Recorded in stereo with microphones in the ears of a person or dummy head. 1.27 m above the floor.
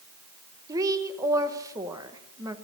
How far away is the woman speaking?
About 1.1 m.